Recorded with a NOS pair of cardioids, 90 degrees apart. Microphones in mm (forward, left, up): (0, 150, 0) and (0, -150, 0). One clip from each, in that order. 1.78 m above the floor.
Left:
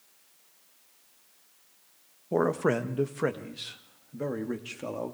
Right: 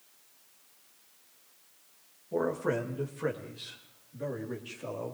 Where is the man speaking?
70° left, 1.9 m; by 5.2 s 50° left, 3.5 m.